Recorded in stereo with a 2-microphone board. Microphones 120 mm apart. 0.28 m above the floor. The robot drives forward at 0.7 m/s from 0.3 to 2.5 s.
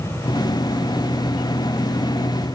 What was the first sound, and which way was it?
Only background noise.